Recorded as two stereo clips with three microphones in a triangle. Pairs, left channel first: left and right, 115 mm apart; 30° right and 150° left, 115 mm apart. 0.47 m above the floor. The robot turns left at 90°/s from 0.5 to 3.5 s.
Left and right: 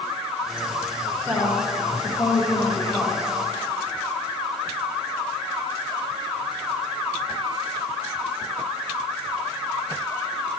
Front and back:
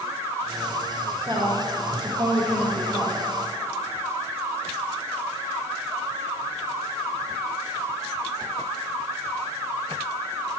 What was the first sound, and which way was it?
A woman speaking, 170° left.